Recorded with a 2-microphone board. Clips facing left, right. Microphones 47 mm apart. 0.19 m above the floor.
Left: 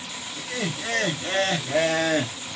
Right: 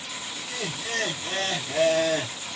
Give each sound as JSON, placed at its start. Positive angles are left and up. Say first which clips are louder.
{"t": 0.4, "sound": "laughter", "louder": "left 5 dB", "side_deg": 40, "distance_m": 2.5}